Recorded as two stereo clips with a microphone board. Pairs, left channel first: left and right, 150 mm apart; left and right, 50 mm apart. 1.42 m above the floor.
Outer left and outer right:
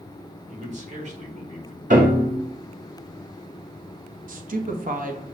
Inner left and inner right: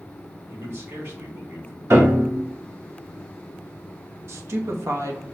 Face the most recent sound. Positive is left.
turn(degrees=-65)  # may be behind; listen again after turning